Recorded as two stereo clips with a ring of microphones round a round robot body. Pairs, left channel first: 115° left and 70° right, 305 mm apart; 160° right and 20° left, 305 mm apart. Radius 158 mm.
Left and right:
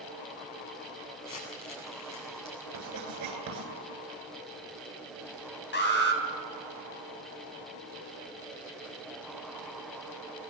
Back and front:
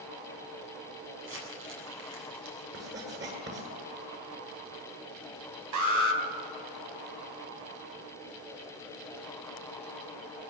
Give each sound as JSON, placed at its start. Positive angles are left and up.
{"t": 1.2, "sound": "crumpling", "azimuth_deg": 75, "distance_m": 8.0}
{"t": 2.7, "sound": "writing", "azimuth_deg": -30, "distance_m": 9.0}
{"t": 5.7, "sound": "an alarm", "azimuth_deg": 55, "distance_m": 4.0}